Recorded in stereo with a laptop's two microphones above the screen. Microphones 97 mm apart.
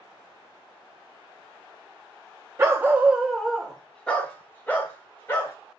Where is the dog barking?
30° right (ahead or behind), 0.5 m; by 5.5 s 20° left (ahead or behind), 1.7 m.